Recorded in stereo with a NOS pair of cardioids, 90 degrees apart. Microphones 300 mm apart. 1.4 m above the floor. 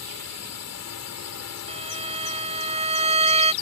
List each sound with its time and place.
0.0 s a drone: 60° left
1.7 s a violin: 20° right